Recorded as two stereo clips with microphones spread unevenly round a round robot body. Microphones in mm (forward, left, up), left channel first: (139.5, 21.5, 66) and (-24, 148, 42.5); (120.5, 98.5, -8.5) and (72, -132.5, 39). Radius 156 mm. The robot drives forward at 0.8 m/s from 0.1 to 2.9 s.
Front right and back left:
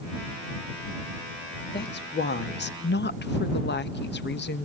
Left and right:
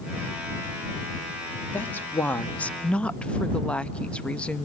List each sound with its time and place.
1.7 s a woman speaking: straight ahead, 2 m